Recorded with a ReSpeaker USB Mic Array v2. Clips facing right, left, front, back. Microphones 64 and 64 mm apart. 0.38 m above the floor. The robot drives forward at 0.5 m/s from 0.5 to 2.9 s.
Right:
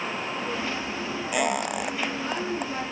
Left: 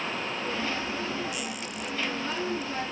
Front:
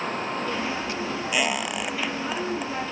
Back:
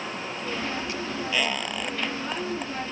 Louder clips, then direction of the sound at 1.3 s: Right 10 dB, front 2 dB; 75° right.